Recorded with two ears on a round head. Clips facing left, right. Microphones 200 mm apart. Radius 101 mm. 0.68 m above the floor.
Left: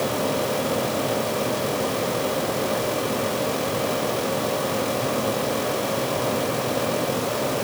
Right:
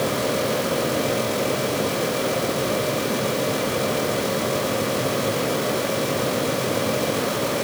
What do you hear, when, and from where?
Only background noise.